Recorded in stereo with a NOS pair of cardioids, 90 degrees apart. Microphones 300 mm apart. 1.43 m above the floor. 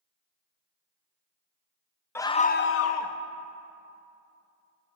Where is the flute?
I don't hear a flute.